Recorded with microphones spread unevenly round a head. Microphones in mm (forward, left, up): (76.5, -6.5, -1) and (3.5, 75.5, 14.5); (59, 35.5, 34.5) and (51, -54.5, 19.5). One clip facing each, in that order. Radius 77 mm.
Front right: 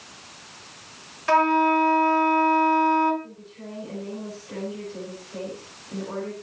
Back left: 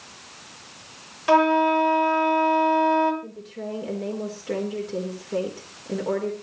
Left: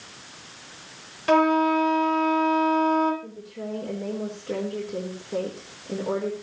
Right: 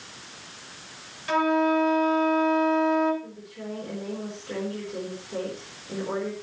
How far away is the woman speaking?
About 4.5 m.